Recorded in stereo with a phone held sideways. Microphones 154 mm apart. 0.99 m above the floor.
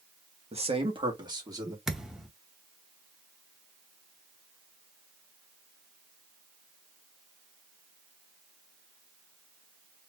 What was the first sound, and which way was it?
A man speaking, 45° right (ahead or behind).